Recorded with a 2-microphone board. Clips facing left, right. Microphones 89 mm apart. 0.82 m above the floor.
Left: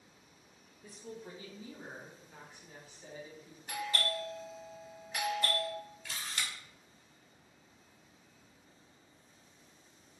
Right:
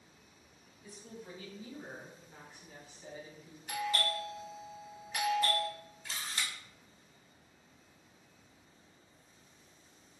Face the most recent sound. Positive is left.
turn(degrees=-35)  # may be behind; listen again after turning